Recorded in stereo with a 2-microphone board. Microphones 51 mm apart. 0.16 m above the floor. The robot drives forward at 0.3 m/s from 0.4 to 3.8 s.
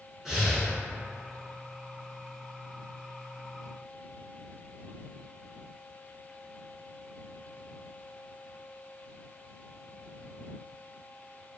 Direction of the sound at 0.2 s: 10° right (ahead or behind).